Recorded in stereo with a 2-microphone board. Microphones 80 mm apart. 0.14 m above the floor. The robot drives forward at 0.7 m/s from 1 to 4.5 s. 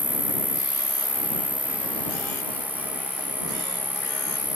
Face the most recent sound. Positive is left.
turn(degrees=0)  # may be behind; listen again after turning